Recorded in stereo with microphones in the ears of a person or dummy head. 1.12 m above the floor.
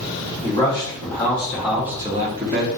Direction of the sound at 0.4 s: 20° left (ahead or behind).